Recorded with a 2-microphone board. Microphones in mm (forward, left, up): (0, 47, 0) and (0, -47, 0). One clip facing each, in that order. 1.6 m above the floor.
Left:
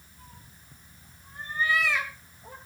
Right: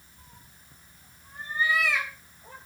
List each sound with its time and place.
0.2 s a cat meowing: 20° right (ahead or behind), 3.5 m; by 2.5 s 10° left (ahead or behind), 3.5 m